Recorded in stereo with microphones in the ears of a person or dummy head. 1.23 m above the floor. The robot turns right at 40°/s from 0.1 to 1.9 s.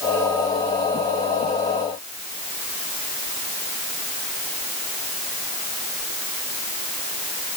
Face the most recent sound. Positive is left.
No sound to turn to.